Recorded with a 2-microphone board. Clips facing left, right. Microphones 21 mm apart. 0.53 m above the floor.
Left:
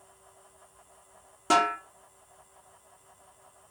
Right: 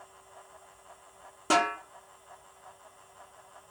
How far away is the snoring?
No snoring in this recording.